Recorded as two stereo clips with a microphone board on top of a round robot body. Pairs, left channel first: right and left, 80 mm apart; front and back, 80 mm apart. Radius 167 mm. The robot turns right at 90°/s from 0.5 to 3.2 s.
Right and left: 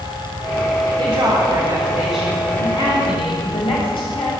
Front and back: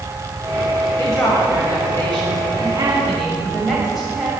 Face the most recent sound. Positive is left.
turn(degrees=-90)